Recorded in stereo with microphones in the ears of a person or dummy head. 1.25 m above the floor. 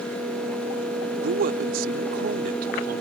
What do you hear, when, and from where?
1.2 s a man speaking: 55° right (ahead or behind)